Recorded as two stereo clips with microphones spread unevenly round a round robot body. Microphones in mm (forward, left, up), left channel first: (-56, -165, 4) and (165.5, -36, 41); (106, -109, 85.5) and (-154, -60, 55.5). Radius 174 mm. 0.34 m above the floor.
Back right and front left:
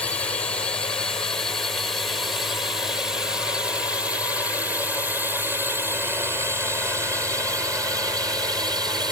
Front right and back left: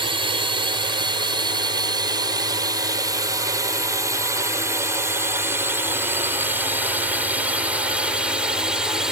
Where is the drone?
145° left; by 9.1 s 100° left.